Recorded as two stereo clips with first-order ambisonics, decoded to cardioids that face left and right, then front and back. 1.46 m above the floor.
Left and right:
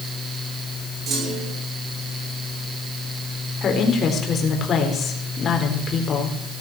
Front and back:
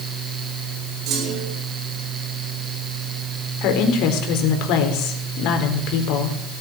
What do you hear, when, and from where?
1.1 s a clunk: 140° right, 6 m
3.6 s a woman speaking: 25° left, 4 m